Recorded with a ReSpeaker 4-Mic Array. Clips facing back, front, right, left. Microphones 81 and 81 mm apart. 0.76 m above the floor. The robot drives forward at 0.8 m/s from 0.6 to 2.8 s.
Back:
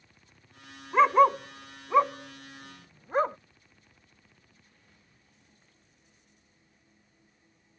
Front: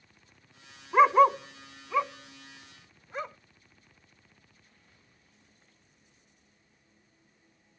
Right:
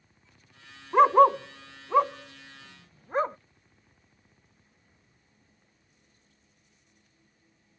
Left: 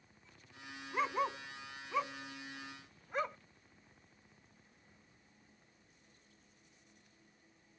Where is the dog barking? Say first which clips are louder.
Even, right 18 dB; 80° right; by 3.4 s 140° right.